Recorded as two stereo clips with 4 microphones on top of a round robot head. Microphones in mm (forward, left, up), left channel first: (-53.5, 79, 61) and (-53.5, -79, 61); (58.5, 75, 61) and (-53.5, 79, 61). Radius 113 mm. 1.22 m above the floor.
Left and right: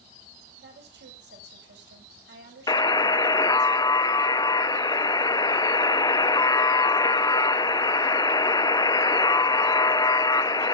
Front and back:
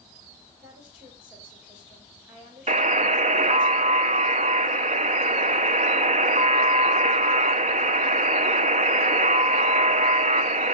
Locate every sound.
0.6 s a woman speaking: 100° right, 5.5 m
2.7 s a buzzer: 160° left, 0.7 m